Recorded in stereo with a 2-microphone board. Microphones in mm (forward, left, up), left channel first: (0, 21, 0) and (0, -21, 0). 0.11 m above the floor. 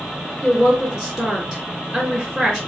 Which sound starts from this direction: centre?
A woman speaking, at 0.4 s.